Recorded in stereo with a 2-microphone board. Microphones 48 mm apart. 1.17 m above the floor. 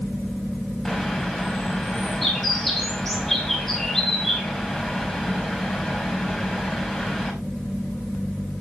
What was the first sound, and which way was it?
A bird, 5° left (ahead or behind).